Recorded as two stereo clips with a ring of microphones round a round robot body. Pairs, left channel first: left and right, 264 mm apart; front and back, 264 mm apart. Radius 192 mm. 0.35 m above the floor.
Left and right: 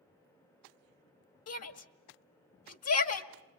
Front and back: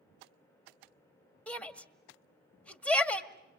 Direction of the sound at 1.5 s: 85° left.